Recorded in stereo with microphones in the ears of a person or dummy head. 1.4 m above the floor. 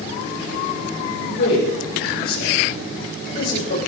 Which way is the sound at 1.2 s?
65° left (ahead or behind).